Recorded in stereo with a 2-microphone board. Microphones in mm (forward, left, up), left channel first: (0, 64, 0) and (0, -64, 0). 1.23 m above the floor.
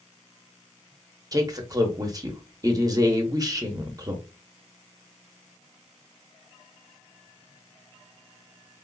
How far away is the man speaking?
About 0.8 m.